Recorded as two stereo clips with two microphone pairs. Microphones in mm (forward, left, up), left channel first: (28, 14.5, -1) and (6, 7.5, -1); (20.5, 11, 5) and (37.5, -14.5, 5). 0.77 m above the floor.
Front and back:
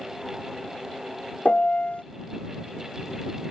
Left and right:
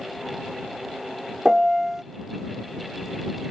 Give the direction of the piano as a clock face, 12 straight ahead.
11 o'clock.